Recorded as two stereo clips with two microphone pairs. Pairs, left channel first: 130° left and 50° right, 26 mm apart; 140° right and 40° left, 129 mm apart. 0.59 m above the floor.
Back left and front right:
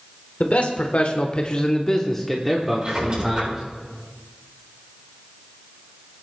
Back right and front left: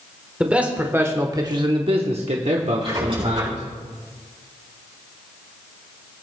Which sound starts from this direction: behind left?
A man speaking, at 0.4 s.